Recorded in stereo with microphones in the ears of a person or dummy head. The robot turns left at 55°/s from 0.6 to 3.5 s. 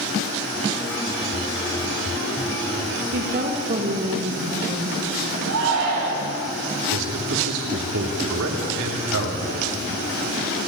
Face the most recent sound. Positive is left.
turn(degrees=-75)  # may be behind; listen again after turning